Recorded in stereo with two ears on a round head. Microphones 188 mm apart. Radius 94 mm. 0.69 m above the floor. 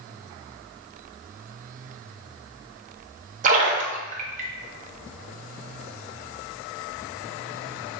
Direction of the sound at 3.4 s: 35° right (ahead or behind).